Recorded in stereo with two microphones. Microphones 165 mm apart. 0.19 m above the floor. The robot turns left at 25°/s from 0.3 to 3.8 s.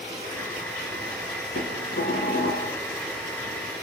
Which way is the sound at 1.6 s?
80° left.